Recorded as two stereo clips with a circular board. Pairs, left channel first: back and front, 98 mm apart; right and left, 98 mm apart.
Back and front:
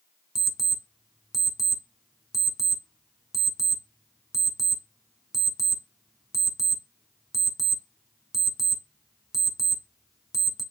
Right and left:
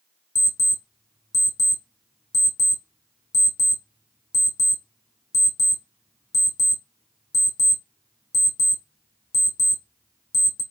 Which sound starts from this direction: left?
An alarm clock, at 0.3 s.